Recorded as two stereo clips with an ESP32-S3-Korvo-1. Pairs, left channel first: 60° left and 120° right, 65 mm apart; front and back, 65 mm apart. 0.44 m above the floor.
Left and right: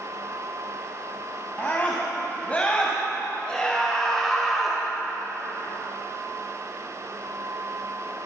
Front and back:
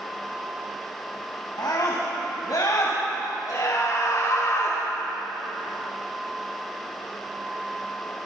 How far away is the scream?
About 3.5 m.